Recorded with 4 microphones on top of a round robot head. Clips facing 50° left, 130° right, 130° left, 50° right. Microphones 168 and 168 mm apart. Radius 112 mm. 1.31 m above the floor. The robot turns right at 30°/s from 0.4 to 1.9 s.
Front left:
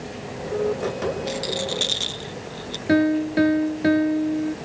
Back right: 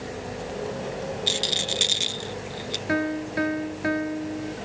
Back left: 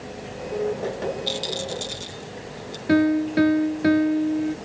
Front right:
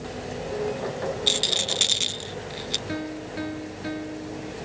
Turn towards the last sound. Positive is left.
turn(degrees=105)